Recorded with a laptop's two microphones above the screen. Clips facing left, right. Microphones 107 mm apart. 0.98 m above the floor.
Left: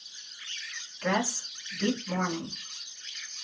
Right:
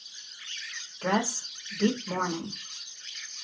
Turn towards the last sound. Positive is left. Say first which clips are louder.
# right 1 dB
turn(degrees=-45)  # may be behind; listen again after turning